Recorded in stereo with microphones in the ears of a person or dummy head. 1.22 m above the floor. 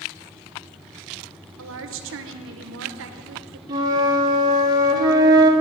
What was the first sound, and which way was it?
A woman speaking, 70° right (ahead or behind).